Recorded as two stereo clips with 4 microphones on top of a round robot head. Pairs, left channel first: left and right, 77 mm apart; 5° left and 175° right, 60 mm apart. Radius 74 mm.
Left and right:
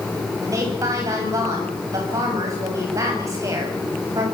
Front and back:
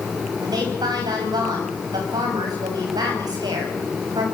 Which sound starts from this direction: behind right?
A woman speaking, at 0.4 s.